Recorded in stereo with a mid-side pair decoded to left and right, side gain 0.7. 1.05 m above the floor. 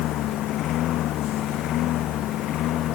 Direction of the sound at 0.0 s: 55° left.